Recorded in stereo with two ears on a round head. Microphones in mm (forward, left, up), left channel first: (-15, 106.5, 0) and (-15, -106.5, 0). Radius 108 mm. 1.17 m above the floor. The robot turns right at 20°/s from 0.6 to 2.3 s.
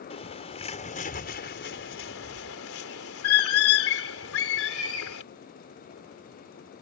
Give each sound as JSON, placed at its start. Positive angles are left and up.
{"t": 0.1, "sound": "a bird", "side_deg": 25}